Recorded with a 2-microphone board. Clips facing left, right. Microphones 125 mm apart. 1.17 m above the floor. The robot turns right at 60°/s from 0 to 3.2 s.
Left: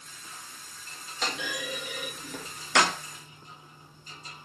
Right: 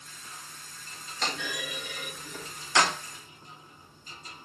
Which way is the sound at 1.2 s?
5° left (ahead or behind).